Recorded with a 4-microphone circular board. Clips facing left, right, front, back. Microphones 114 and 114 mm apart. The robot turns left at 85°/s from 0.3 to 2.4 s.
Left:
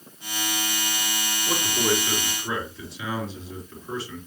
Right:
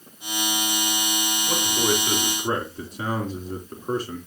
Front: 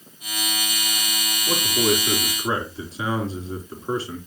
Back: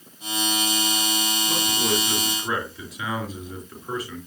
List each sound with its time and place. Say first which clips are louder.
1.5 s a man speaking: even, front 6 dB; 25° left, 3 m; by 4.2 s 55° right, 3 m